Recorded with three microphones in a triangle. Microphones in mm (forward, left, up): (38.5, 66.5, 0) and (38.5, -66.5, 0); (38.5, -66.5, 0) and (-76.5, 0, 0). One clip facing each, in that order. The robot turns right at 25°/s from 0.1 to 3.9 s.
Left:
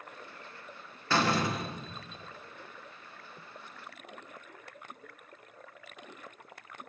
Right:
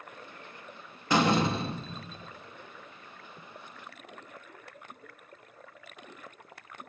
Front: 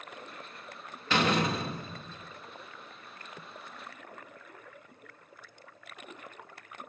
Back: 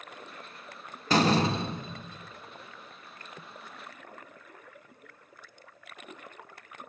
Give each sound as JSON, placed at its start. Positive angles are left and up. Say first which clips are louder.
{"t": 1.1, "sound": "a door slam", "louder": "right 4 dB, back 3 dB", "azimuth_deg": -160, "distance_m": 0.7}